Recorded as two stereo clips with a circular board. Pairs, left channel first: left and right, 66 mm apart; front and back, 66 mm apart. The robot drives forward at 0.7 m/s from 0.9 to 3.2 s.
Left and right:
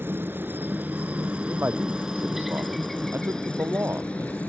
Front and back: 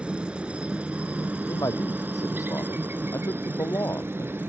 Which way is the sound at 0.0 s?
115° right.